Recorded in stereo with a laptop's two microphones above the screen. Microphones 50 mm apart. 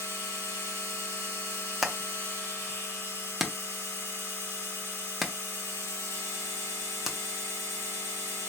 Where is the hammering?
5° right (ahead or behind), 0.5 m.